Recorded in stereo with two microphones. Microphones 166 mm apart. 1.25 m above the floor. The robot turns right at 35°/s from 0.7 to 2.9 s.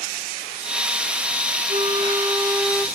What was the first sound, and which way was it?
A flute, 50° right.